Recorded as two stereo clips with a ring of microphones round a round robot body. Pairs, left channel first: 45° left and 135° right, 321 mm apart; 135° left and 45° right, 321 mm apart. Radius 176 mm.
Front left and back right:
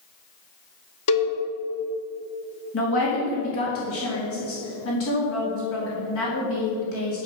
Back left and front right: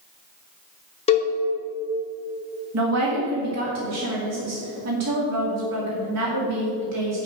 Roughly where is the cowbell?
Ahead left.